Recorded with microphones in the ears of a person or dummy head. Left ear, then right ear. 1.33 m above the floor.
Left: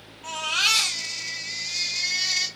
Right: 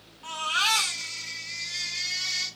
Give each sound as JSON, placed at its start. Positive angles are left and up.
{"t": 0.2, "sound": "a baby crying", "side_deg": -25, "distance_m": 1.2}